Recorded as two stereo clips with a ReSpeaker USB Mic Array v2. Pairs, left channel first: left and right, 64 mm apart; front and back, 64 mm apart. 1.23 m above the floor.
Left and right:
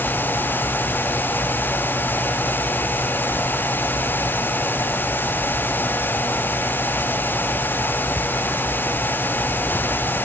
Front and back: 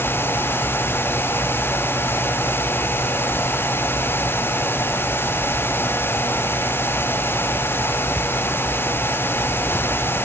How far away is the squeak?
No squeak in this recording.